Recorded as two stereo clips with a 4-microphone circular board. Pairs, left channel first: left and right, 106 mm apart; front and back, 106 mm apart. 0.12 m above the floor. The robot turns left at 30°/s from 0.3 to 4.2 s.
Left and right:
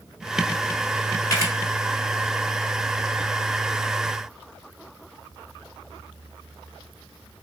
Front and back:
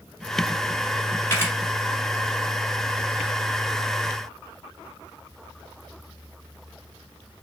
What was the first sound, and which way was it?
A camera shutter, 55° left.